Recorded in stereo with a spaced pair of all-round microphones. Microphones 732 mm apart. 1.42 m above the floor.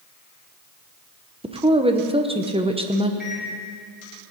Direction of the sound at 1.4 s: 10° right (ahead or behind).